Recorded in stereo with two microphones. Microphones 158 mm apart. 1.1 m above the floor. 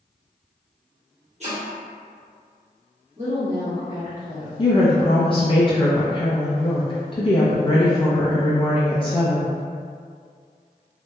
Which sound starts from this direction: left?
A woman speaking, at 4.6 s.